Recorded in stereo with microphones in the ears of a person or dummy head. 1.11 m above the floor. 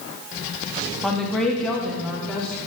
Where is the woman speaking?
Centre (ahead or behind), 1.2 m; by 2.5 s 5° left (ahead or behind), 2 m.